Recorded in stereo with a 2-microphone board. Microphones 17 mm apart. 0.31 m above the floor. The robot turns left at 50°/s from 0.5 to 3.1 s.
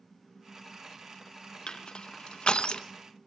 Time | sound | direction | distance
1.7 | crushing | 50° left (ahead or behind) | 0.9 m